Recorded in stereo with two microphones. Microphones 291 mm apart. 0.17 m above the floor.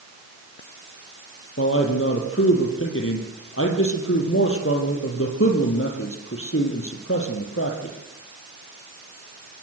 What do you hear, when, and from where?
1.6 s a man speaking: 50° left (ahead or behind), 5 m